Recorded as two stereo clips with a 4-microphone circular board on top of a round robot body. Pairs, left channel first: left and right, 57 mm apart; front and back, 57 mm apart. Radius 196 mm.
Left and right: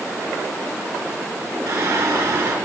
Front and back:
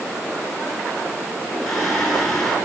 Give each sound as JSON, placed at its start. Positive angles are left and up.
{"t": 1.7, "sound": "singing", "azimuth_deg": -85, "distance_m": 7.0}